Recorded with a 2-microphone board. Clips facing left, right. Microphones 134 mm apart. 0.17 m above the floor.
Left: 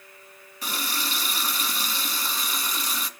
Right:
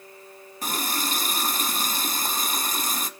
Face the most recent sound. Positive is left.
turn(degrees=-45)  # may be behind; listen again after turning